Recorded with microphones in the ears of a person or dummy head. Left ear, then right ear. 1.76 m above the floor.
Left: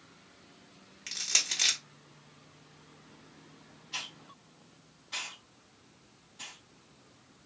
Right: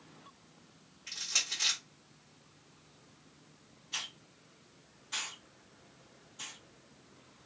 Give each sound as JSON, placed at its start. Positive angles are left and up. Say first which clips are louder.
{"t": 1.1, "sound": "crushing", "louder": "left 4 dB", "side_deg": 45, "distance_m": 1.1}
{"t": 3.9, "sound": "a hiss", "louder": "even", "side_deg": -10, "distance_m": 0.8}